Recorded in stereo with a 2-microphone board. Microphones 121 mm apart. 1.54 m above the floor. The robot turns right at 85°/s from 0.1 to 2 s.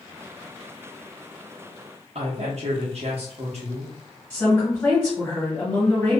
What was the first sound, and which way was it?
A woman speaking, 55° right (ahead or behind).